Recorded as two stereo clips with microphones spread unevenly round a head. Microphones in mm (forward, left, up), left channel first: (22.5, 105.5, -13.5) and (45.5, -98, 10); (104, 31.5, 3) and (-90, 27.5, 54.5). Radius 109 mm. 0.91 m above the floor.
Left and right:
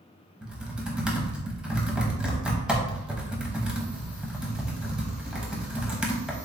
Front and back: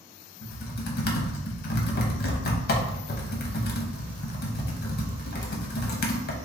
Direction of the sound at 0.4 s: 5° left.